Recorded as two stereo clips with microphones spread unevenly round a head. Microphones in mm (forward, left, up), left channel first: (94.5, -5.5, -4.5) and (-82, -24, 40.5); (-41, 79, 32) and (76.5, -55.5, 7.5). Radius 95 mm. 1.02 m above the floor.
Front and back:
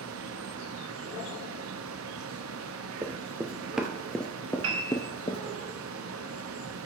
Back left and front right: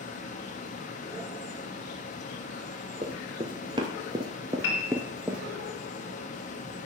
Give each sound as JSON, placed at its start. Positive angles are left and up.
{"t": 0.0, "sound": "a fan", "azimuth_deg": -175, "distance_m": 1.1}
{"t": 3.0, "sound": "running footsteps", "azimuth_deg": -115, "distance_m": 1.5}
{"t": 4.6, "sound": "a piano", "azimuth_deg": 165, "distance_m": 3.0}